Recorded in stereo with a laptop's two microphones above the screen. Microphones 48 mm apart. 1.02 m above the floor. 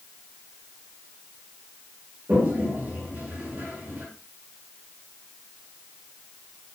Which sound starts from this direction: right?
A toilet flushing, at 2.3 s.